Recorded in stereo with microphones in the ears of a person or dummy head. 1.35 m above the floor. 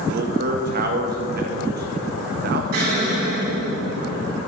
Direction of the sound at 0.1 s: 55° right (ahead or behind).